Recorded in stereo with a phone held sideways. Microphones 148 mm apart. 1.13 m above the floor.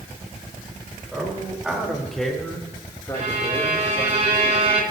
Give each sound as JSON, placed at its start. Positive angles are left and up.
{"t": 1.1, "sound": "a man speaking", "side_deg": -10, "distance_m": 5.0}
{"t": 3.1, "sound": "a violin", "side_deg": -45, "distance_m": 3.0}